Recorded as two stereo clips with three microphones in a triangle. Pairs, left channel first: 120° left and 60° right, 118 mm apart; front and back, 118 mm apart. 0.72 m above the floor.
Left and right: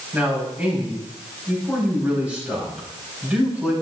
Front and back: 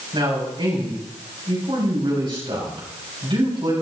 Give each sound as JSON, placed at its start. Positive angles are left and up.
{"t": 0.1, "sound": "a man speaking", "azimuth_deg": -135, "distance_m": 4.0}